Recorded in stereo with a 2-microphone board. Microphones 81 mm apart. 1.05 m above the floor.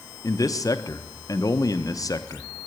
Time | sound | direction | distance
0.2 | a man speaking | 45° left (ahead or behind) | 0.7 m